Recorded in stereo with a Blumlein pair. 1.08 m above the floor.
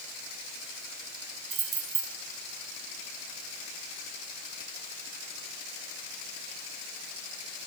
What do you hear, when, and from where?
1.5 s keys jangling: 35° right, 1.5 m